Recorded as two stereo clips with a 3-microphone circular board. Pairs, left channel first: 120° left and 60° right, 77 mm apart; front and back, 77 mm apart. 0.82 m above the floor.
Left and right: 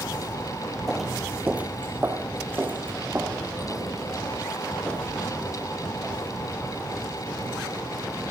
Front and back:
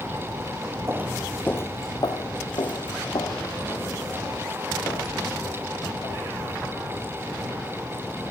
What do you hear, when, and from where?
0.9 s footsteps: 155° right, 0.9 m; by 6.3 s 5° left, 7.5 m